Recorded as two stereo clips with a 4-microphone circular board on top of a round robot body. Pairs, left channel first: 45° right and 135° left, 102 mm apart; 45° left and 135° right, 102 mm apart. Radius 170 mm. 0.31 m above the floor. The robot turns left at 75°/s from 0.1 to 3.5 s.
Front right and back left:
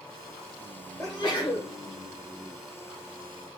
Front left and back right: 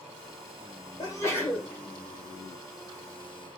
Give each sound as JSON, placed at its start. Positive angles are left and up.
{"t": 1.0, "sound": "a sneeze", "azimuth_deg": 10, "distance_m": 1.4}